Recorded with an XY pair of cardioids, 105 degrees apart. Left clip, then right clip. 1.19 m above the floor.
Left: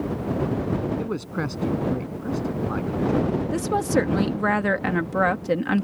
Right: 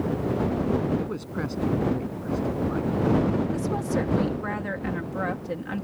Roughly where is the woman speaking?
Ahead left.